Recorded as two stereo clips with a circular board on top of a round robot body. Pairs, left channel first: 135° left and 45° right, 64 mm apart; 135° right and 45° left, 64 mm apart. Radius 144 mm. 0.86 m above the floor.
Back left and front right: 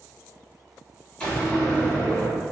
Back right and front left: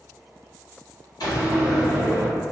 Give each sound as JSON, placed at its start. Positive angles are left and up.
{"t": 1.2, "sound": "a door slam", "azimuth_deg": -155, "distance_m": 1.9}